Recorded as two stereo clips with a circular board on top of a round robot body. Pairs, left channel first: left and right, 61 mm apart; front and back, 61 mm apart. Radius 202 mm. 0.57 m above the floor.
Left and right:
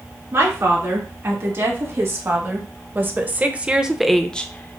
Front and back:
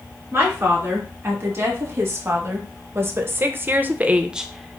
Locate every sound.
0.3 s a woman speaking: 130° right, 2.5 m; by 4.8 s 80° left, 0.8 m